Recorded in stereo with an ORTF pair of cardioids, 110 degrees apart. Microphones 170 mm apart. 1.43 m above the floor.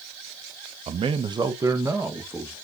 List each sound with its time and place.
0.9 s a man speaking: 40° right, 0.7 m; by 2.5 s 10° right, 1.9 m